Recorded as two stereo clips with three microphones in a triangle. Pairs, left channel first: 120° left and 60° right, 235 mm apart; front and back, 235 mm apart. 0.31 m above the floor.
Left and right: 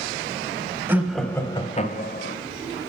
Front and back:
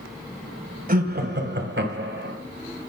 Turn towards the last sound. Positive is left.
turn(degrees=150)